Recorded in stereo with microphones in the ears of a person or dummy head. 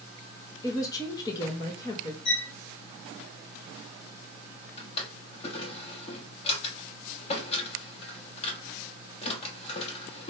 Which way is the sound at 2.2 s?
60° left (ahead or behind).